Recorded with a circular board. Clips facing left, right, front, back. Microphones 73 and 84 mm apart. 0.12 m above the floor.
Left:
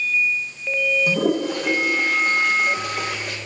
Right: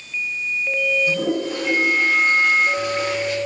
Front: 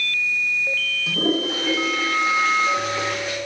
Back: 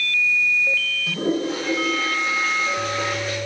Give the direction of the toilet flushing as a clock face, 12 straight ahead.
10 o'clock.